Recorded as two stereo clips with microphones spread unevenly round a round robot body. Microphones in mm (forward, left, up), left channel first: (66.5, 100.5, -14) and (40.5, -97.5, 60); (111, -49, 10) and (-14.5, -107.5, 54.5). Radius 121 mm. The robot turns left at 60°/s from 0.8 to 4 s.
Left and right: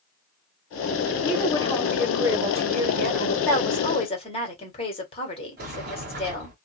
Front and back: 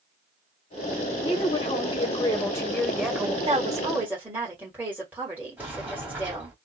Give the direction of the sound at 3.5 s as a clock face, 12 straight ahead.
7 o'clock.